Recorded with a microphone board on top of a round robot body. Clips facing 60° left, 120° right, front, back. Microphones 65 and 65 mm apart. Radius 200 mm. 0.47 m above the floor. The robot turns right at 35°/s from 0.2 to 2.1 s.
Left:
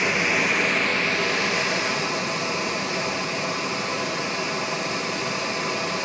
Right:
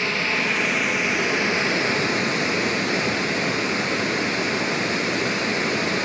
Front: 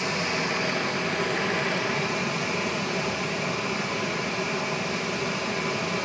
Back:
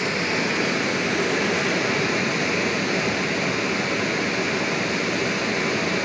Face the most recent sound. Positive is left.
turn(degrees=-160)